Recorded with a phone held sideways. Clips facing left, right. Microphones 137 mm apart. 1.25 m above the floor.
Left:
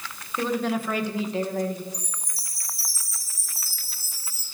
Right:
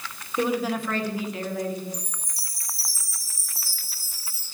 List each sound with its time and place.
0.4 s a woman speaking: 15° right (ahead or behind), 1.0 m; by 1.8 s 45° left (ahead or behind), 1.3 m
1.9 s a chime: 5° left (ahead or behind), 3 m